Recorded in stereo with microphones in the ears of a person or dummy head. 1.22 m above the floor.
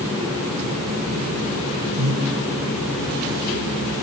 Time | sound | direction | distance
2.0 | breathing | 65° right (ahead or behind) | 8 m